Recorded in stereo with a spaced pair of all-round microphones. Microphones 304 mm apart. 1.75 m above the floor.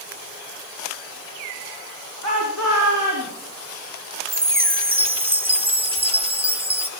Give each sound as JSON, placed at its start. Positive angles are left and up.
{"t": 2.2, "sound": "a shout", "side_deg": -75, "distance_m": 3.0}
{"t": 4.3, "sound": "a chime", "side_deg": -20, "distance_m": 1.0}